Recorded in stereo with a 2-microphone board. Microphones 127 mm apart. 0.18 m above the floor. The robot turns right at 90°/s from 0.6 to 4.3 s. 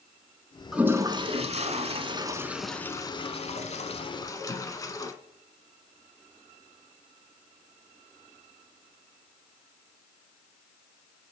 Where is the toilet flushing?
5° right (ahead or behind), 0.6 m; by 5.1 s 25° left (ahead or behind), 0.6 m.